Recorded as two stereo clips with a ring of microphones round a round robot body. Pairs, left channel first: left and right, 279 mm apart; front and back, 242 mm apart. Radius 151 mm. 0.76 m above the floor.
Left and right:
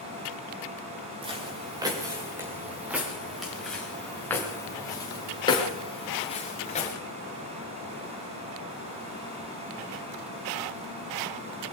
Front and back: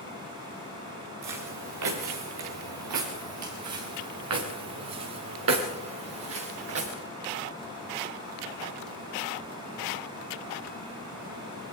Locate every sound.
1.2 s footsteps: 165° right, 4.5 m; by 6.9 s 155° left, 5 m